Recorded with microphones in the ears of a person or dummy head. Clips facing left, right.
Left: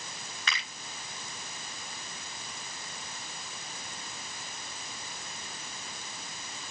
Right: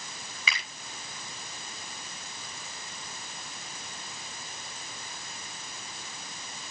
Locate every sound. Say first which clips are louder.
0.5 s a finger snap: right 1 dB; 5° right (ahead or behind), 6.5 m